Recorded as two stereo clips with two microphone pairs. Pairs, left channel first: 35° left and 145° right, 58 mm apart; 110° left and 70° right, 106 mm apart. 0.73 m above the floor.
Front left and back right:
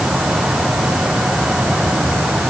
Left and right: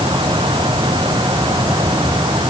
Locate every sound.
Only background noise.